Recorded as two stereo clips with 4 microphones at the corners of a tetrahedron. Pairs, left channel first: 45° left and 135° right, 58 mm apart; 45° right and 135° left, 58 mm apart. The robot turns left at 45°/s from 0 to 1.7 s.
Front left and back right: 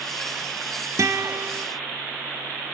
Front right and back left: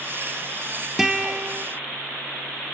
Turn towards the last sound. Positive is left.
turn(degrees=-175)